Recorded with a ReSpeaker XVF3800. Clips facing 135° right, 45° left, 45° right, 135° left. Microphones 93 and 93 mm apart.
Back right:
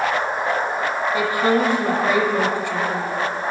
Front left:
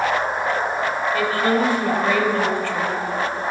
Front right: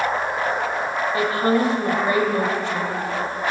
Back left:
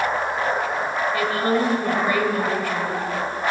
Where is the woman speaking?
80° right, 1.1 m.